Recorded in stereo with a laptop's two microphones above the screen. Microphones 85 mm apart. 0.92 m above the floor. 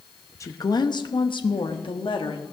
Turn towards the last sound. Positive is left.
turn(degrees=75)  # may be behind; listen again after turning